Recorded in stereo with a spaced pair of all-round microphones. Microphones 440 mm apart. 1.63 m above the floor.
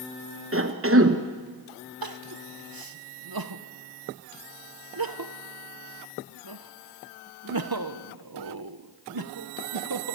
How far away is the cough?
About 1.2 m.